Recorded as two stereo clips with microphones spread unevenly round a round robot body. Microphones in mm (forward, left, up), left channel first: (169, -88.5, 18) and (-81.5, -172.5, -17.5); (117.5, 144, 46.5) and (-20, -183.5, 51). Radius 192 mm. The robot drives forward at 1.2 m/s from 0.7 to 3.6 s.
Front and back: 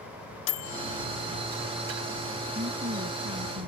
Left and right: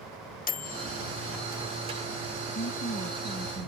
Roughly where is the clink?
I don't hear a clink.